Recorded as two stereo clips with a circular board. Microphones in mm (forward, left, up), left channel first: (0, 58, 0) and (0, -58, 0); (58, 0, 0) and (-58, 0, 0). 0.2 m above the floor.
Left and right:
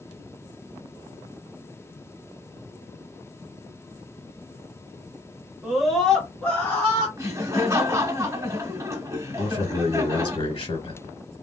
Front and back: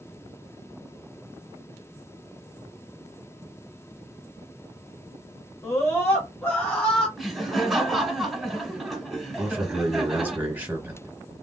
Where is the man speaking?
110° left, 1.7 m.